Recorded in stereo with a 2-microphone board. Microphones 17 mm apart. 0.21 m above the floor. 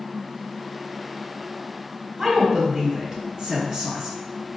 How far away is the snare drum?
I don't hear a snare drum.